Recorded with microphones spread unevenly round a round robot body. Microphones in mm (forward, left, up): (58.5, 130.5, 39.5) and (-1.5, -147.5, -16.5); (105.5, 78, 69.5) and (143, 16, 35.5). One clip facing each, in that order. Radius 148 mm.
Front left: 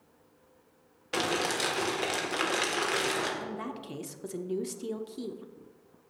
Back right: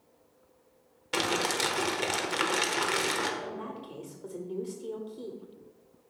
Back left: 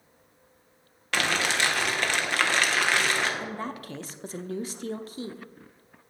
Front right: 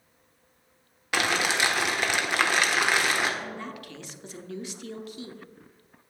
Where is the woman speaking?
60° left, 0.9 m.